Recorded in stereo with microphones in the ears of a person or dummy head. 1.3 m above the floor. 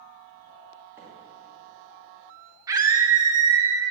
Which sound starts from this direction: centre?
A microwave, at 1.0 s.